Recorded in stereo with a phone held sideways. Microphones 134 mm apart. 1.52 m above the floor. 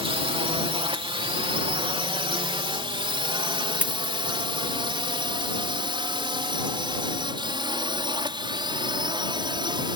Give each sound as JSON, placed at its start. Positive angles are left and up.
{"t": 0.0, "sound": "a drone", "side_deg": -45}
{"t": 3.8, "sound": "a dropped coin", "side_deg": -10}